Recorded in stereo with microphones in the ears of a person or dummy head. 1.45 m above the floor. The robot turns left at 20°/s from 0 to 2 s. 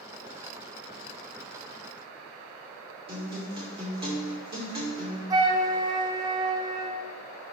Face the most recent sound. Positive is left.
turn(degrees=-25)  # may be behind; listen again after turning